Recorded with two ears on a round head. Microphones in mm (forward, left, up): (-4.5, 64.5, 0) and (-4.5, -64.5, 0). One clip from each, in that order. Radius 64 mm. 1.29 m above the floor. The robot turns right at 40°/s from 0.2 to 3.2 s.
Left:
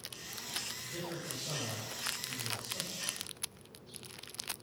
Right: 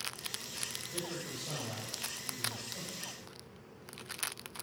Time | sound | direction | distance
0.8 | a man speaking | 45° right | 7.5 m